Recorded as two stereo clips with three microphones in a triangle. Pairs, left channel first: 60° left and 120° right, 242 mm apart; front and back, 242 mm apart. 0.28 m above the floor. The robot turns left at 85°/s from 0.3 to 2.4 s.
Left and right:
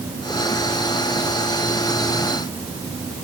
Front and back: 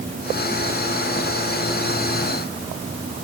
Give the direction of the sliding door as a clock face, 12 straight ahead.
No sliding door in this recording.